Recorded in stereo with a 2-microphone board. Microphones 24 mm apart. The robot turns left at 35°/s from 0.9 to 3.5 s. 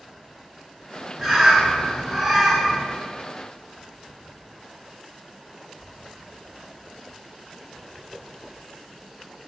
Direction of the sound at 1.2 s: 25° right (ahead or behind).